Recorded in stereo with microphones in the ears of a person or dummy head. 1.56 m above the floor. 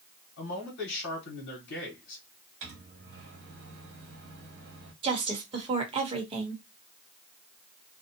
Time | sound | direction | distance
0.4 | a man speaking | 75° left (ahead or behind) | 1.2 m
2.6 | a microwave | 55° right (ahead or behind) | 1.1 m
5.0 | a woman speaking | 30° right (ahead or behind) | 0.9 m